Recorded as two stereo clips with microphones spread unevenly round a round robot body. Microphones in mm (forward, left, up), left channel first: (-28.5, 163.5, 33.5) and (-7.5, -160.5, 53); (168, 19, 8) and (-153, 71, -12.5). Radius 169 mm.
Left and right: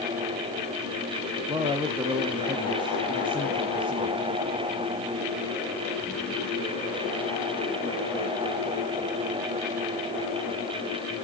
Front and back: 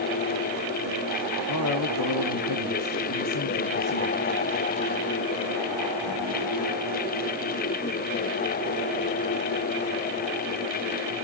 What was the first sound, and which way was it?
A man speaking, 10° right.